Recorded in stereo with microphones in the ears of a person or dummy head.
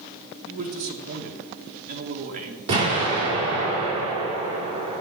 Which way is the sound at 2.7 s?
30° right (ahead or behind).